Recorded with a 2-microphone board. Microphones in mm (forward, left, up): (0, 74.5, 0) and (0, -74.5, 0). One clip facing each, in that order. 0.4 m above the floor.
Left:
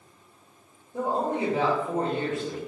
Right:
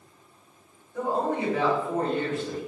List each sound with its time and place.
0.9 s a woman speaking: 40° left (ahead or behind), 1.7 m; by 2.6 s 15° left (ahead or behind), 1.3 m